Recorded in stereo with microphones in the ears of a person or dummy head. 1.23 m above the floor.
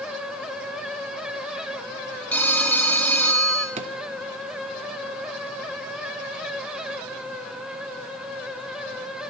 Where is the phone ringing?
5° left (ahead or behind), 0.7 m.